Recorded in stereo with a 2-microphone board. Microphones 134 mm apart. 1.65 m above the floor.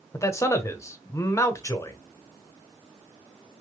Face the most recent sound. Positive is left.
turn(degrees=20)  # may be behind; listen again after turning